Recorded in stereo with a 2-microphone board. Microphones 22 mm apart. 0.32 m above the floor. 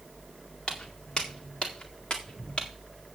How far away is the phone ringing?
No phone ringing in this recording.